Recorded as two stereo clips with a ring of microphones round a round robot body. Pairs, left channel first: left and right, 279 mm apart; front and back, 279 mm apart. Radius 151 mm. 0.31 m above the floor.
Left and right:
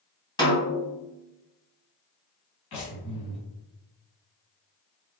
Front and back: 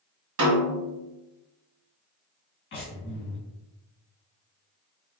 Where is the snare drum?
165° left, 1.9 m.